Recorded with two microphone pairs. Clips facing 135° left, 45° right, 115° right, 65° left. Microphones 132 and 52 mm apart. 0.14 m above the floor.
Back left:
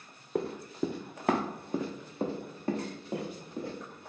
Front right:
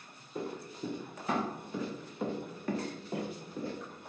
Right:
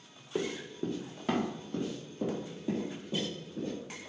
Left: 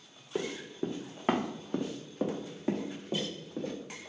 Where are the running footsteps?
150° left, 0.7 m; by 3.8 s 60° left, 1.7 m.